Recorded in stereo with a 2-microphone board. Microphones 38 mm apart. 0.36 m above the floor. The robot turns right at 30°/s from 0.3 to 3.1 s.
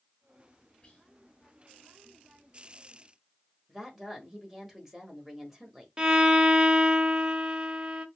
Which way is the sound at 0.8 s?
30° left (ahead or behind).